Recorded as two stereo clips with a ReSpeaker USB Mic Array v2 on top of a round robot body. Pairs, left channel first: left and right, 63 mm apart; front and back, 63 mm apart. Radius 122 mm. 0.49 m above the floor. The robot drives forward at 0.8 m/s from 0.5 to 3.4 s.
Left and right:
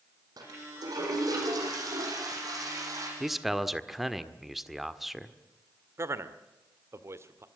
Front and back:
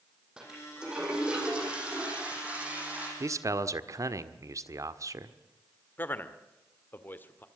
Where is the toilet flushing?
100° right, 9 m; by 3.1 s 115° right, 9.5 m.